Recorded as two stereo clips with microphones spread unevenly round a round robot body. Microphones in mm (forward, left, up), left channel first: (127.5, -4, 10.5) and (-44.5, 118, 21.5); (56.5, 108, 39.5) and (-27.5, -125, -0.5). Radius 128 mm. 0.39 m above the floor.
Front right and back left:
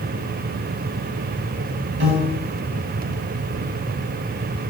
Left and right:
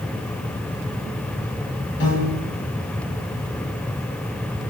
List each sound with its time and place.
2.0 s a piano: 120° left, 3.5 m